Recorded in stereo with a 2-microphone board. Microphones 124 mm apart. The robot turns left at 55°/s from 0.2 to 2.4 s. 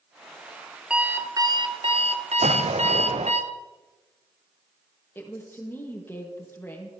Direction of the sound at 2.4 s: 60° right (ahead or behind).